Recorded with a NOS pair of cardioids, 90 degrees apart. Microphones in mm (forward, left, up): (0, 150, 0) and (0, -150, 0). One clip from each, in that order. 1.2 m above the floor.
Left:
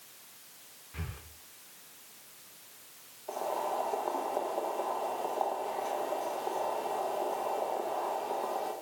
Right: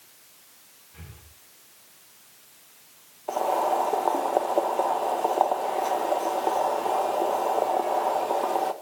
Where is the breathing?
40° left, 1.0 m.